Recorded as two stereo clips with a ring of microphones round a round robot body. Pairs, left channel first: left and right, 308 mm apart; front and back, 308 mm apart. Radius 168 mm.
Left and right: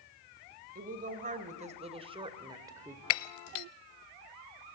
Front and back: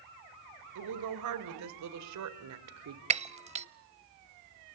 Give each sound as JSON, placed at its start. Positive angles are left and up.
{"t": 0.8, "sound": "a woman speaking", "azimuth_deg": -155, "distance_m": 2.5}
{"t": 3.1, "sound": "breaking glass", "azimuth_deg": 110, "distance_m": 0.7}